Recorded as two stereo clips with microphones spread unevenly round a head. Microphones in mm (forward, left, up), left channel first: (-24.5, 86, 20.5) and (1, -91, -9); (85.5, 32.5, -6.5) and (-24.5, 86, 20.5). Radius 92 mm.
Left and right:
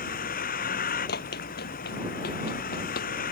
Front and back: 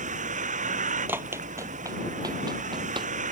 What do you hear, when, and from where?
0.0 s a vehicle: 140° left
1.1 s running footsteps: 95° left; by 3.1 s 120° left